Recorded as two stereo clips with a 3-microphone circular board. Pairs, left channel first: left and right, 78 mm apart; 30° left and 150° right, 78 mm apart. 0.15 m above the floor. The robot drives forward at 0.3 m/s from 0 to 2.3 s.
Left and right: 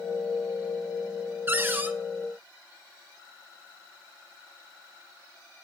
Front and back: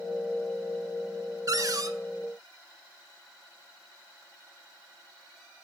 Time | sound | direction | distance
1.5 | a cupboard door | 140° right | 0.6 m